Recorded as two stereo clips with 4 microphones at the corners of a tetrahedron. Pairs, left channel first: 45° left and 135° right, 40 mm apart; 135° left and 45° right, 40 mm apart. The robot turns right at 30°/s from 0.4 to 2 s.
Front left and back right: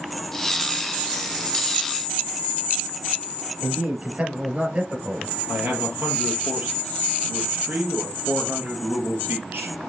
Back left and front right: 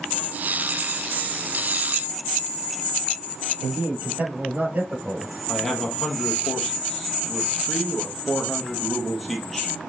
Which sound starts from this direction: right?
A man speaking, at 3.6 s.